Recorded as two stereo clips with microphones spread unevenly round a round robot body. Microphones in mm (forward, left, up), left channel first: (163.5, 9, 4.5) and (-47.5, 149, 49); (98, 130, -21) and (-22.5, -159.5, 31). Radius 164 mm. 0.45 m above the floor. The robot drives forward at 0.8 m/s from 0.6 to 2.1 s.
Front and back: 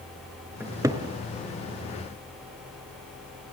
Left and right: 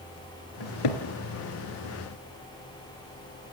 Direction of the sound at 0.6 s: 65° left.